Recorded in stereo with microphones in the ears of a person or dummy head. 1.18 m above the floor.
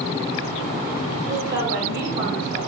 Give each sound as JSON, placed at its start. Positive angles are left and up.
{"t": 1.3, "sound": "a woman speaking", "side_deg": -65, "distance_m": 2.5}